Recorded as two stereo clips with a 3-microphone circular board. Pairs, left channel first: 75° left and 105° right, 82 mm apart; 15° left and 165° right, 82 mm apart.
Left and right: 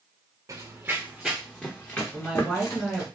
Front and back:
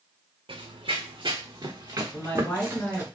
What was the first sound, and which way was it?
Running footsteps, 155° right.